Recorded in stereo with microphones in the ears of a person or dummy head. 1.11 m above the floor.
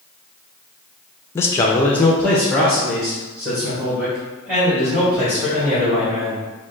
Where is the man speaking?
20° left (ahead or behind), 0.5 m; by 6.4 s 5° right (ahead or behind), 3 m.